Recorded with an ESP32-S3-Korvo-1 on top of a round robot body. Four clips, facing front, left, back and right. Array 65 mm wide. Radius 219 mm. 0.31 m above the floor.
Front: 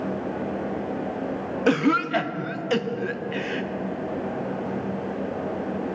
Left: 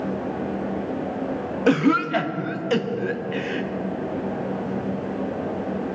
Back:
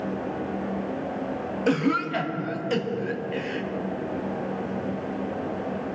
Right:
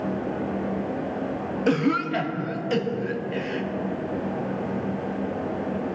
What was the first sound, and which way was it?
A cough, 35° left.